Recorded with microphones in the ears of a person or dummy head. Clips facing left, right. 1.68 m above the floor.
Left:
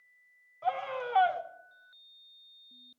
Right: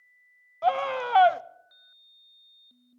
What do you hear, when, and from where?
0.6 s a scream: 70° right (ahead or behind), 0.6 m